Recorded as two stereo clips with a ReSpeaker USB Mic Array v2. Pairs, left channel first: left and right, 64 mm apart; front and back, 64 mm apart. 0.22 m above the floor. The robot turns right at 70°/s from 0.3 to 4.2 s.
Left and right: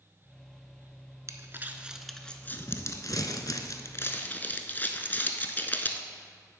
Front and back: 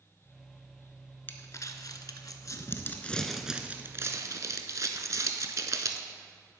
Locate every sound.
1.3 s crumpling: 55° right, 0.6 m; by 6.0 s 150° left, 0.6 m